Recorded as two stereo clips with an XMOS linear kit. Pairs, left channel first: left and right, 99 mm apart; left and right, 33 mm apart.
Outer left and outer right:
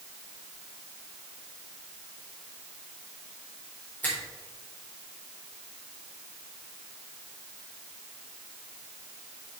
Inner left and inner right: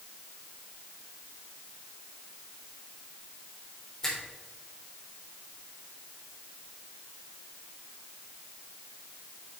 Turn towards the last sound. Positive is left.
turn(degrees=20)  # may be behind; listen again after turning